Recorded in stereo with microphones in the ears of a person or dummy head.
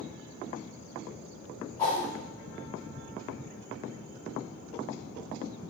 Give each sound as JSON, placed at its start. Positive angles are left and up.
{"t": 1.8, "sound": "a whoosh", "side_deg": 20, "distance_m": 0.8}